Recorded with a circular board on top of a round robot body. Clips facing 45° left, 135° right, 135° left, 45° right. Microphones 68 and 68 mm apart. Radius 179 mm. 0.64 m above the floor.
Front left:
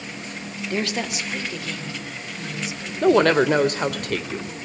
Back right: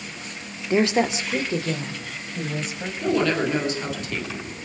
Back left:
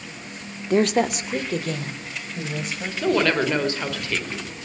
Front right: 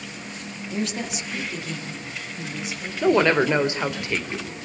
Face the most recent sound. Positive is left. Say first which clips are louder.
# front left 6 dB, front right 3 dB
turn(degrees=25)